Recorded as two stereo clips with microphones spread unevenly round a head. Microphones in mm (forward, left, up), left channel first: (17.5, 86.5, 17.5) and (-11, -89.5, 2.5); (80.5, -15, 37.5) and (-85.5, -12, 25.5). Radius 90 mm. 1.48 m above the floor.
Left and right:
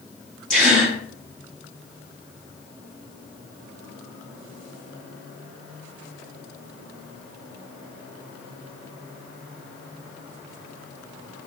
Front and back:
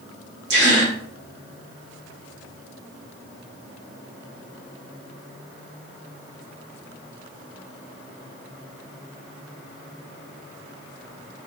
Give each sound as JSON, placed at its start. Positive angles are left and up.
{"t": 0.5, "sound": "a gasp", "azimuth_deg": 160, "distance_m": 1.2}